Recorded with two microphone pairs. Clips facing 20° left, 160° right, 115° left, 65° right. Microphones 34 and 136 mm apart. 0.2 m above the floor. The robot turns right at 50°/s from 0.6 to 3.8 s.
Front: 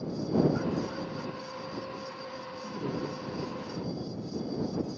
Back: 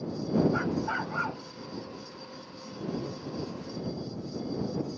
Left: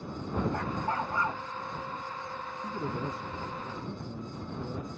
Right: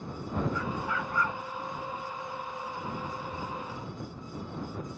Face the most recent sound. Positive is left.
turn(degrees=150)